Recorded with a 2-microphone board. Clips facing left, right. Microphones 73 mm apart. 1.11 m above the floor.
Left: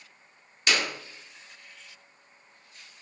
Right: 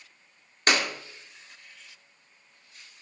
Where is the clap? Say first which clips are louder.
Right 2 dB; 45° right (ahead or behind), 1.9 m.